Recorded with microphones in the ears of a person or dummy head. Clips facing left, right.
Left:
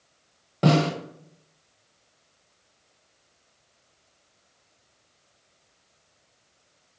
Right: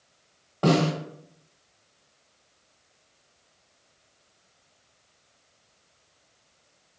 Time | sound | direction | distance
0.6 | a snare drum | 25° left (ahead or behind) | 1.4 m